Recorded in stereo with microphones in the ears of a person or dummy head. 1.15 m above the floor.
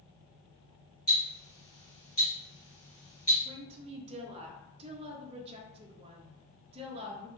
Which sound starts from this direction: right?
A woman speaking, at 3.5 s.